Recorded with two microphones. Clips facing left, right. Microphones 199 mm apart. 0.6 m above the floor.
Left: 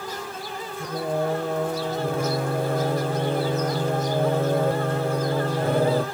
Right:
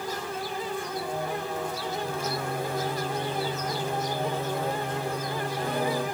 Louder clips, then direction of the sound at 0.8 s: Left 6 dB; 55° left (ahead or behind).